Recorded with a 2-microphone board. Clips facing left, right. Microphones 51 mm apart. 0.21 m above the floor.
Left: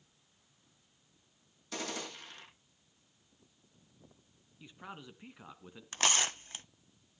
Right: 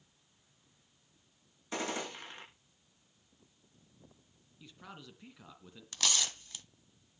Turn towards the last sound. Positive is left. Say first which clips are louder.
# left 4 dB
turn(degrees=35)  # may be behind; listen again after turning